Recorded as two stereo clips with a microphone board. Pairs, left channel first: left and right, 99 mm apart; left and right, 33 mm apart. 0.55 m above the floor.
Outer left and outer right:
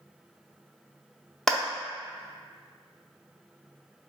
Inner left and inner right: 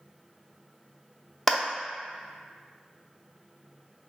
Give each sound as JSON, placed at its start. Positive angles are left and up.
{"t": 1.5, "sound": "a clap", "side_deg": 5, "distance_m": 0.6}